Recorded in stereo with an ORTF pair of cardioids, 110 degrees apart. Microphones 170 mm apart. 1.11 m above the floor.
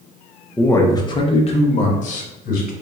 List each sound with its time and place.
0.6 s a man speaking: 10° left, 0.9 m; by 2.7 s 55° left, 1.6 m